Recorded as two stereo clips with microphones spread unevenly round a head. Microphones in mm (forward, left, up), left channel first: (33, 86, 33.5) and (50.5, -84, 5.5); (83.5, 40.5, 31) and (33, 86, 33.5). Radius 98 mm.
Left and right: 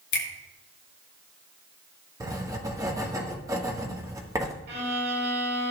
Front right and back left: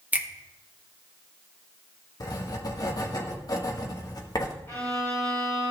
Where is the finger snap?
70° left, 1.7 m.